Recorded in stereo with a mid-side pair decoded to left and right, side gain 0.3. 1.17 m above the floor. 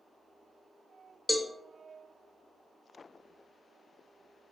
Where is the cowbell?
20° left, 0.5 m.